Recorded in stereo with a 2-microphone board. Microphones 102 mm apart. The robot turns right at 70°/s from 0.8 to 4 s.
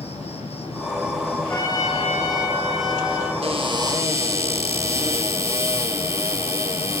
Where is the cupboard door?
75° right, 4.5 m; by 7.0 s 30° right, 4.5 m.